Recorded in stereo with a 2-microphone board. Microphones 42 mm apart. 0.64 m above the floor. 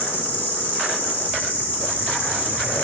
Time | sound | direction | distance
0.0 | an insect | 55° left (ahead or behind) | 1.0 m